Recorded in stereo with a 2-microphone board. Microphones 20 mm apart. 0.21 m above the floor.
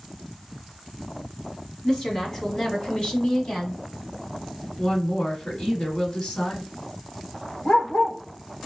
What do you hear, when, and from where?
1.8 s a woman speaking: 30° left (ahead or behind), 1.4 m; by 3.8 s 35° left (ahead or behind), 1.3 m
4.8 s a woman speaking: 50° left (ahead or behind), 1.4 m
7.7 s a dog barking: 65° left (ahead or behind), 1.1 m